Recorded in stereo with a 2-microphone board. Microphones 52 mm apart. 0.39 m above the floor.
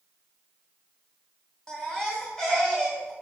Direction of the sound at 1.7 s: 5° left (ahead or behind).